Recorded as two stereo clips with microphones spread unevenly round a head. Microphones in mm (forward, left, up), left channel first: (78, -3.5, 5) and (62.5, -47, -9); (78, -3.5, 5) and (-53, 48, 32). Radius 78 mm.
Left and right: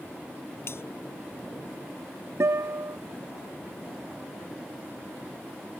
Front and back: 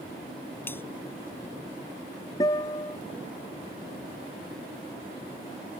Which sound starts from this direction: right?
A guitar, at 2.4 s.